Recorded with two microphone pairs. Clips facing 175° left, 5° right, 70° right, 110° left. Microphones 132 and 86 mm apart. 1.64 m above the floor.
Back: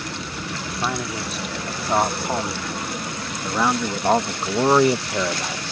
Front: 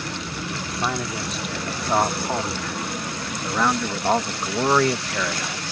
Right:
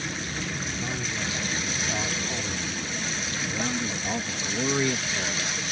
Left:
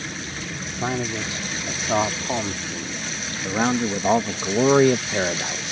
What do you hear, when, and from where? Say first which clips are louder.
0.7 s a man speaking: even, left 6 dB; 85° left; by 5.7 s 115° left